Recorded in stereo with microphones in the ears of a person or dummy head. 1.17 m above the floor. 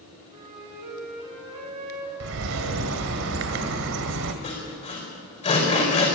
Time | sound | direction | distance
0.3 | a flute | 40° right (ahead or behind) | 7 m
2.2 | a bird | 65° right (ahead or behind) | 1.8 m
4.4 | sawing | 30° left (ahead or behind) | 5 m